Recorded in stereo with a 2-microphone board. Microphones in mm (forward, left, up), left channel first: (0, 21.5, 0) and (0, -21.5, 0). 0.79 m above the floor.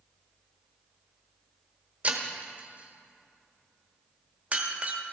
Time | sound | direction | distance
2.0 | breaking glass | 25° right (ahead or behind) | 1.2 m